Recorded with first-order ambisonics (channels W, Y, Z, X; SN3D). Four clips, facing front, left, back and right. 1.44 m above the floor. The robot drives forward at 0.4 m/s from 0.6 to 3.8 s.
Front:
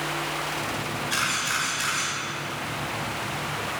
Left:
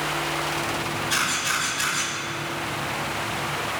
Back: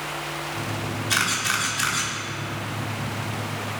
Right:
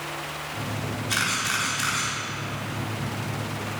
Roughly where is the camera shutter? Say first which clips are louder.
Even, back 3 dB; behind.